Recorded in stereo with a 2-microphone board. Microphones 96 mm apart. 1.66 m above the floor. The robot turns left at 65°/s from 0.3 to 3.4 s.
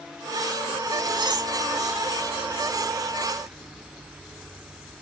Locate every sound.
1.1 s cutlery clinking: 50° right (ahead or behind), 1.5 m; by 1.5 s 35° right (ahead or behind), 1.5 m